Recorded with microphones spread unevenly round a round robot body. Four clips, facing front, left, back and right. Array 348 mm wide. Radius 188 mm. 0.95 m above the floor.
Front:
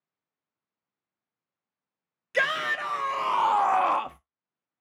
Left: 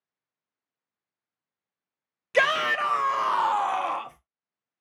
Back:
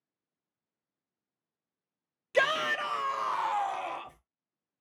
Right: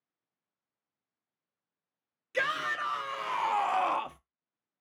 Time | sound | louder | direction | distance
2.3 | a shout | left 9 dB, even | 80° left | 1.0 m